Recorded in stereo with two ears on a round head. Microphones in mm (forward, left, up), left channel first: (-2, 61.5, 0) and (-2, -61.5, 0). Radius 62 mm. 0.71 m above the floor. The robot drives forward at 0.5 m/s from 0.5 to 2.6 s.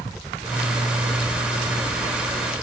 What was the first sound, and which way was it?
A helicopter, 5° right (ahead or behind).